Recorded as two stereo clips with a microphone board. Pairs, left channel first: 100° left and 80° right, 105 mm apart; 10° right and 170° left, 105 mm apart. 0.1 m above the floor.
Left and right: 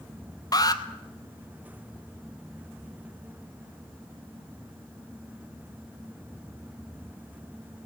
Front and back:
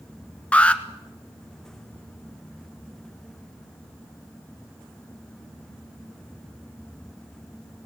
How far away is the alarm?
About 1.3 m.